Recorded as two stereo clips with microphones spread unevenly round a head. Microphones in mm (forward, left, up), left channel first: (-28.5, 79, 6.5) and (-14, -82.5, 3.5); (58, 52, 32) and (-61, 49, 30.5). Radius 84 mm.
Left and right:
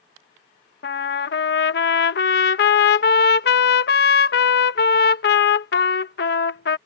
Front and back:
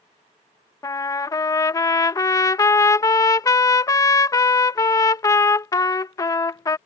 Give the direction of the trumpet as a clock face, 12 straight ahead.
10 o'clock.